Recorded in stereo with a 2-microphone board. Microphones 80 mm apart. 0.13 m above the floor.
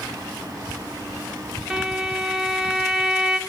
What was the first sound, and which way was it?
A violin, 5° right (ahead or behind).